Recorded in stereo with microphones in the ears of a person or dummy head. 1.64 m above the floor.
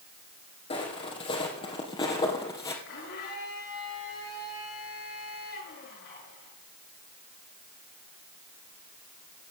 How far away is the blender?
About 7 m.